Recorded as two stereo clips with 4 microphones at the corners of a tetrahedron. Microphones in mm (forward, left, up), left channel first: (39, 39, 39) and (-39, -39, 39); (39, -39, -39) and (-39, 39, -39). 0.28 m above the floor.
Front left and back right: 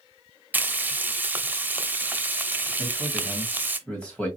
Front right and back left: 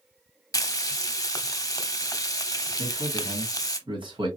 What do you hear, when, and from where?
0.5 s frying: 70° right, 0.5 m
2.8 s a man speaking: 125° left, 2 m